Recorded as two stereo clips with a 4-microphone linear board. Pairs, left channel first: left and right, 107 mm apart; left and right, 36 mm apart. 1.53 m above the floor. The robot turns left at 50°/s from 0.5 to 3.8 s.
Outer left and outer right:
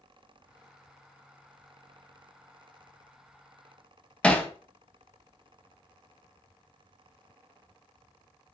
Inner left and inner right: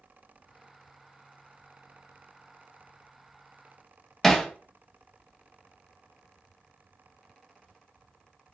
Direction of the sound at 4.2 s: 10° left (ahead or behind).